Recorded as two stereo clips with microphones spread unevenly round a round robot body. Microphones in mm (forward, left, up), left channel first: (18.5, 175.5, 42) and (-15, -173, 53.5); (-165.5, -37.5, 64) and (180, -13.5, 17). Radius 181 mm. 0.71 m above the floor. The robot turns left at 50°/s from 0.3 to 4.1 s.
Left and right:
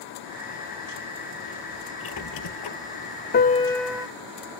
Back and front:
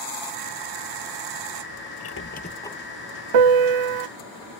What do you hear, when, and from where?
2.0 s a squeak: 140° left; by 2.8 s 100° left
3.3 s a piano: 20° left; by 4.1 s 15° right